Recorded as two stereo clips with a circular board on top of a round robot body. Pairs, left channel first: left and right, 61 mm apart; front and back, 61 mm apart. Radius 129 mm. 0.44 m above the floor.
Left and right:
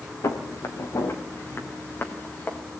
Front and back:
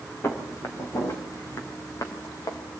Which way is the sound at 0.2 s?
55° left.